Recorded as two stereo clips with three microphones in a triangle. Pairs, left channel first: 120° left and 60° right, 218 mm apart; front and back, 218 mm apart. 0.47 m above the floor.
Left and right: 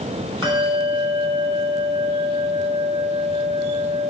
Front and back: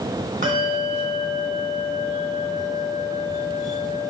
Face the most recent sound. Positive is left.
turn(degrees=-130)